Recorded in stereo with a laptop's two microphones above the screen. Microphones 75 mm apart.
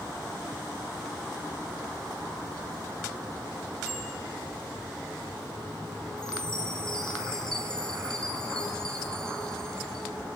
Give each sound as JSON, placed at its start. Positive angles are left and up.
{"t": 3.9, "sound": "a bicycle bell", "side_deg": -15, "distance_m": 6.0}
{"t": 6.2, "sound": "a chime", "side_deg": 10, "distance_m": 4.5}